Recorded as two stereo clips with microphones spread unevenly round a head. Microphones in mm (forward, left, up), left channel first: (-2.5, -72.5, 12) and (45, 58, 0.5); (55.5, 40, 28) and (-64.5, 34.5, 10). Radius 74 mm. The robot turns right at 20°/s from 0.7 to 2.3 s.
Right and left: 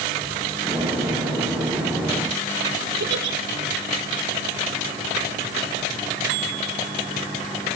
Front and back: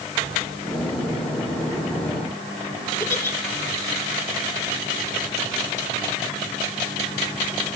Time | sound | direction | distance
3.0 | a giggle | 70° left | 3 m